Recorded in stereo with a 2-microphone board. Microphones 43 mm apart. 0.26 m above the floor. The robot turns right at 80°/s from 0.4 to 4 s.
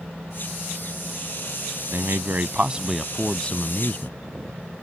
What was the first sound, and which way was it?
A man speaking, 95° right.